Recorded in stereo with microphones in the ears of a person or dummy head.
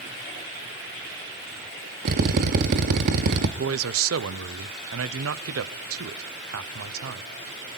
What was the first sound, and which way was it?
A drill, 50° right (ahead or behind).